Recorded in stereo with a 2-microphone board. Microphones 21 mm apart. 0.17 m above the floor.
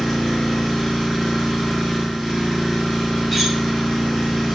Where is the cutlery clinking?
5° right (ahead or behind), 1.0 m.